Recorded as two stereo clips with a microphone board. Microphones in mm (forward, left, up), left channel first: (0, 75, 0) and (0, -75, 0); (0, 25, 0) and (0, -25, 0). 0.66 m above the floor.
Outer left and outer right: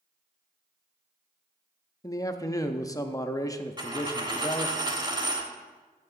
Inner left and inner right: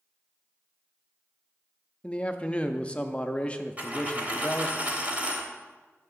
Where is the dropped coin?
30° right (ahead or behind), 1.0 m.